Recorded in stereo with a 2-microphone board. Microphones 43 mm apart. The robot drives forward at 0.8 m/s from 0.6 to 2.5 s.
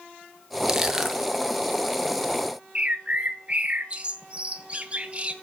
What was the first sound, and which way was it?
Crushing, 15° right (ahead or behind).